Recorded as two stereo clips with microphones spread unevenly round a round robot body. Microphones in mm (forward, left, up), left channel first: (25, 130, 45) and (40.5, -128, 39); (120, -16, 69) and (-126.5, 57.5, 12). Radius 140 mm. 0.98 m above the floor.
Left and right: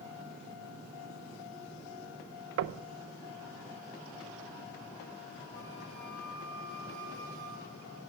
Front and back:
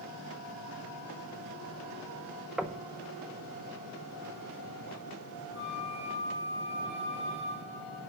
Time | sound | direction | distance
2.6 | knocking | 120° right | 0.6 m
5.5 | a flute | 155° left | 6.5 m